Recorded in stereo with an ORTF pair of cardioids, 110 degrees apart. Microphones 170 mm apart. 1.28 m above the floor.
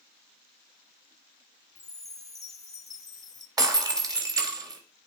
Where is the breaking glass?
20° right, 3.5 m.